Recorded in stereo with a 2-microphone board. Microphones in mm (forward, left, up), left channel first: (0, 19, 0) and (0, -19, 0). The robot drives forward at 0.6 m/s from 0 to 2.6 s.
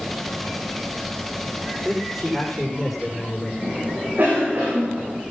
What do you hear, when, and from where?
1.9 s a man speaking: centre (ahead or behind), 9.5 m
3.6 s a cough: 65° right (ahead or behind), 8.5 m